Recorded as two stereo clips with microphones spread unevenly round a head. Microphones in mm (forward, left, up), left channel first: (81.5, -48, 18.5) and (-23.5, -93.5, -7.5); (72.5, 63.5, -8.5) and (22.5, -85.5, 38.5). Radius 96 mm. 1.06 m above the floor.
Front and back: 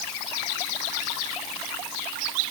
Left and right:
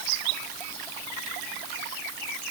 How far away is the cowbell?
I don't hear a cowbell.